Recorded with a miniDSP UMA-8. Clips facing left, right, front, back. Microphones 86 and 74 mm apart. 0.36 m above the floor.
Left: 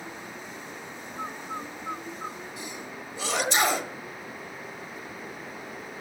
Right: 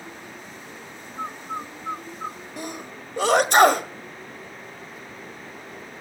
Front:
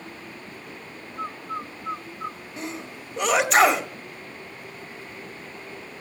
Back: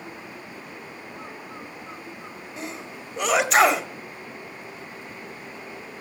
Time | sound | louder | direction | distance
1.2 | a bird | right 4 dB, front 11 dB | 30° right | 0.5 m
2.6 | a sneeze | right 4 dB, even | 90° right | 1.7 m